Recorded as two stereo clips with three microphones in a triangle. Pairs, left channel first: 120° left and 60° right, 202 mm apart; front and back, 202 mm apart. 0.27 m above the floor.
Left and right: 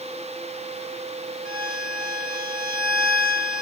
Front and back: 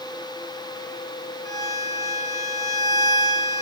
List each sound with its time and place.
1.4 s a violin: 130° right, 2.5 m